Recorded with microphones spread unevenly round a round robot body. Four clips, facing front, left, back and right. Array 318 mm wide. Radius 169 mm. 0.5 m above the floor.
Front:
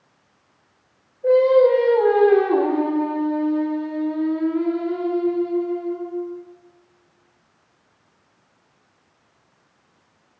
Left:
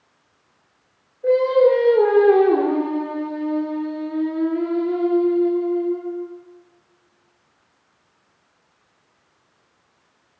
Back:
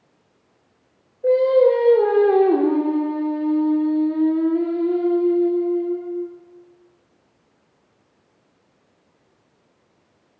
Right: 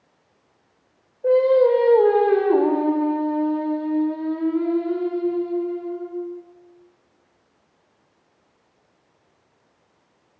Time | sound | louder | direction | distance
1.2 | singing | even, front 1 dB | 160° left | 9 m